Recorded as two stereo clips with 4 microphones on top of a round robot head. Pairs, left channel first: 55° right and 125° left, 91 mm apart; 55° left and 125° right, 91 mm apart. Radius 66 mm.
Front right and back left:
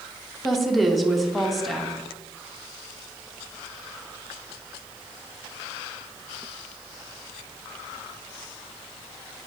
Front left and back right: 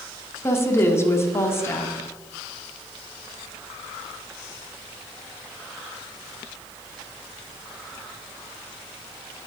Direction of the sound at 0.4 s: 35° left.